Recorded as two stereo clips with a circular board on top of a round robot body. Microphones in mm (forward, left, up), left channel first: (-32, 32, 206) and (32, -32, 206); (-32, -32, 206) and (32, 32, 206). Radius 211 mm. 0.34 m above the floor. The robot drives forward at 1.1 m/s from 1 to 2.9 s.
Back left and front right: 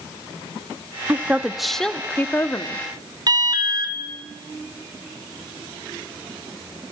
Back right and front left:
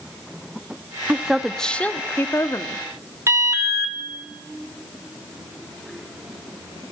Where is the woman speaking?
15° right, 1.4 m; by 2.8 s 175° right, 1.9 m.